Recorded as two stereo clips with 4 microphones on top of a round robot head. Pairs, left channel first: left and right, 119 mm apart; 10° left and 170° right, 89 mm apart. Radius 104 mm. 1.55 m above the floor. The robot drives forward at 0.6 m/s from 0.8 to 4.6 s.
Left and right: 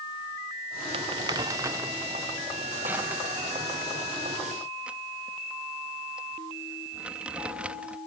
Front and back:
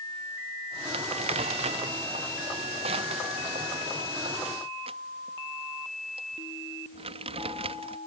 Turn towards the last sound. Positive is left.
turn(degrees=-170)